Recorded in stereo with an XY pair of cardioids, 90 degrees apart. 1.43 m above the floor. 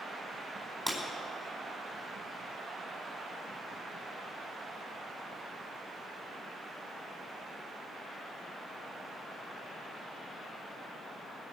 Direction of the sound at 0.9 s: 10° right.